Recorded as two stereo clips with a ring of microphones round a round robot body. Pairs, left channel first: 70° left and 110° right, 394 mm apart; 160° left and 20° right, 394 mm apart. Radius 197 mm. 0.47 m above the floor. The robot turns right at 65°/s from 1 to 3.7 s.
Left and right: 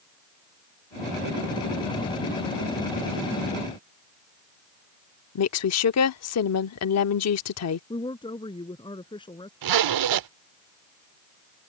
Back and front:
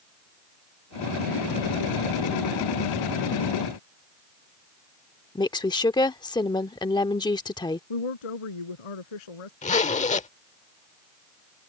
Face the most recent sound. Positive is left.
turn(degrees=-135)